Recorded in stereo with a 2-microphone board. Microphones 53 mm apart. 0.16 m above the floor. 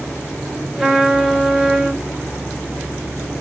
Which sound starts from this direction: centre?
A trumpet, at 0.8 s.